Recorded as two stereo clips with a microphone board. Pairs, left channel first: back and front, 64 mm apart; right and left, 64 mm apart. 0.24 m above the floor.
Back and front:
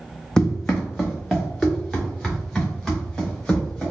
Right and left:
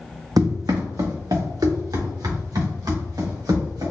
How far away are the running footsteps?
About 0.8 m.